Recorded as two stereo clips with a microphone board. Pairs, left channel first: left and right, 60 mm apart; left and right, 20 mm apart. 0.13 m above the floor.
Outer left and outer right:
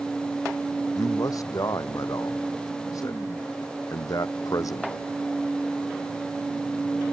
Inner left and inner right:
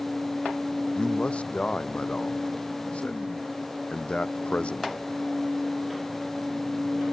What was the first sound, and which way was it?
A man speaking, 75° left (ahead or behind).